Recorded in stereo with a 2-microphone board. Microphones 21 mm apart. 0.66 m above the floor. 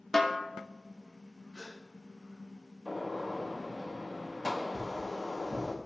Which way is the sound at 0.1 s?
10° left (ahead or behind).